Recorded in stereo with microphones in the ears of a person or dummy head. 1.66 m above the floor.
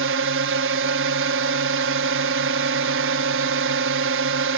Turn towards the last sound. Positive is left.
turn(degrees=-65)  # may be behind; listen again after turning